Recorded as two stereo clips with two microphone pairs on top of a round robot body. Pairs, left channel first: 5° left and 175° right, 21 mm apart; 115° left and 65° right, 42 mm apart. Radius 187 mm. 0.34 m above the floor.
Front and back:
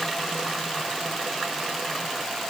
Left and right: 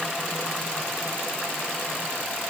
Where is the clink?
I don't hear a clink.